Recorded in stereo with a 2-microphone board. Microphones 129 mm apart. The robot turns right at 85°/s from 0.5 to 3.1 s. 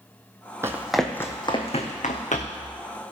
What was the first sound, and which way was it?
Running footsteps, 20° right (ahead or behind).